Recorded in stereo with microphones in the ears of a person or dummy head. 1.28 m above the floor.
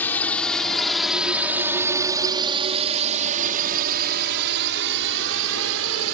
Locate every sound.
0.0 s a drone: 5° left (ahead or behind); by 6.1 s 75° right (ahead or behind)